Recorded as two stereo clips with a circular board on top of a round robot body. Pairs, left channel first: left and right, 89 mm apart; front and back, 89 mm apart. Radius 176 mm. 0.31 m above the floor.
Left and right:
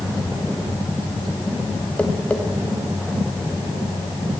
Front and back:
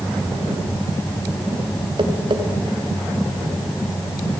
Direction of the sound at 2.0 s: 165° left.